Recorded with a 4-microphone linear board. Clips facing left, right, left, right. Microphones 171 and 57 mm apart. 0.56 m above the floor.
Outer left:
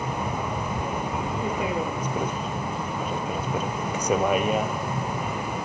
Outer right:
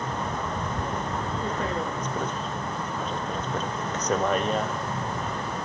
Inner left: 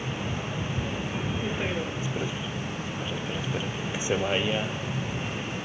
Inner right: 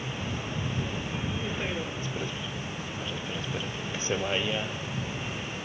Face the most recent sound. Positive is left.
turn(degrees=10)  # may be behind; listen again after turning